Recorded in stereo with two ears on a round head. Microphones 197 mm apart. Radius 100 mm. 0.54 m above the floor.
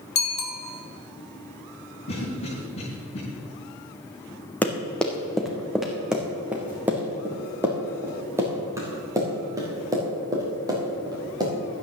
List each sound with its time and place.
0.1 s a bicycle bell: 50° left (ahead or behind), 2.5 m
2.1 s a cough: 30° left (ahead or behind), 4.5 m
4.6 s running footsteps: 10° left (ahead or behind), 2.0 m; by 11.5 s 20° right (ahead or behind), 6 m